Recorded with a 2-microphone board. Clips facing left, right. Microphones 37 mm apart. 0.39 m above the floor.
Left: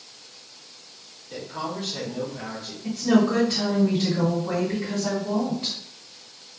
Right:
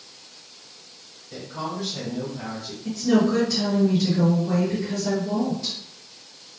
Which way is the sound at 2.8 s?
40° left (ahead or behind).